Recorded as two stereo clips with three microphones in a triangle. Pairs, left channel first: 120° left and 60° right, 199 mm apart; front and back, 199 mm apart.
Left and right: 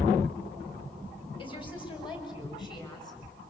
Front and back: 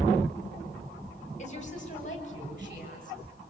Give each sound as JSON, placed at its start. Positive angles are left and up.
{"t": 1.4, "sound": "a woman speaking", "azimuth_deg": 55, "distance_m": 5.0}